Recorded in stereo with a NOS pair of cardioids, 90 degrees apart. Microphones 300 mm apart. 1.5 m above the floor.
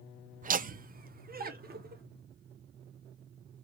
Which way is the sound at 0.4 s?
30° right.